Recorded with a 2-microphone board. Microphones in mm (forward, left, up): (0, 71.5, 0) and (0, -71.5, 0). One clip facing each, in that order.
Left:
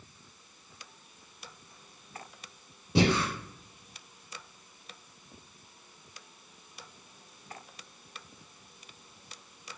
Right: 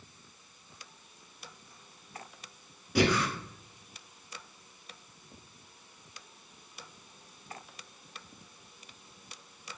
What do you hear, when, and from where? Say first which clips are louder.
3.0 s breathing: left 1 dB; 30° left (ahead or behind), 0.6 m